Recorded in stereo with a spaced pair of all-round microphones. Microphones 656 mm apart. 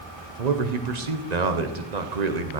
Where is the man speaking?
85° right, 1.4 m.